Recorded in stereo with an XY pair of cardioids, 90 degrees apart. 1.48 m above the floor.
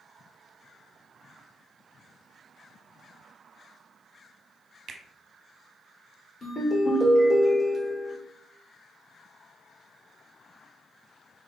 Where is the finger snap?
70° right, 0.9 m.